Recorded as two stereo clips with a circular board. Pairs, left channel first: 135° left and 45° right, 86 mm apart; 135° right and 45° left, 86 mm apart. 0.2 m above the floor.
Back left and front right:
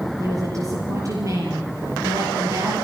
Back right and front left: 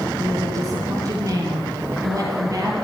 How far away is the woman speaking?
About 6 m.